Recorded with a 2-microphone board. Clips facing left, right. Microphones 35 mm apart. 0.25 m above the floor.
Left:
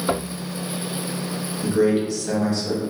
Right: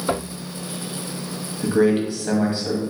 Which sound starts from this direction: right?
A man speaking, at 1.6 s.